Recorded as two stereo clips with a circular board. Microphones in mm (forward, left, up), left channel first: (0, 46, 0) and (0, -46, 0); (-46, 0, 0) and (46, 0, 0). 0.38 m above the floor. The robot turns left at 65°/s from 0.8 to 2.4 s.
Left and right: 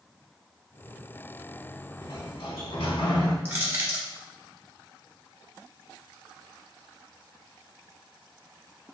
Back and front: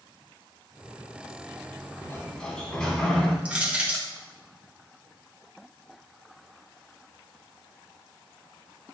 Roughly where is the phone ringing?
No phone ringing in this recording.